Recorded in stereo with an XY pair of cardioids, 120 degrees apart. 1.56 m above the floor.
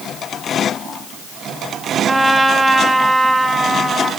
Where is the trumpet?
15° right, 1.8 m.